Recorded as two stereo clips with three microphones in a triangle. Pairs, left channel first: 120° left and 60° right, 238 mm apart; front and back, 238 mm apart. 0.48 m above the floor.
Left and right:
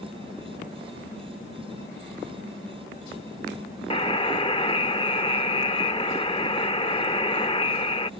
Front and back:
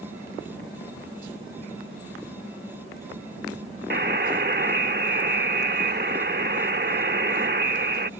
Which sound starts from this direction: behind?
A buzzer, at 3.9 s.